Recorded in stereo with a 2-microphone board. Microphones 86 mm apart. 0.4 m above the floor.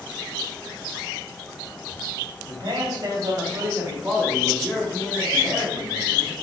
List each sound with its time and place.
2.5 s a man speaking: 50° right (ahead or behind), 1.7 m; by 6.5 s 35° left (ahead or behind), 1.9 m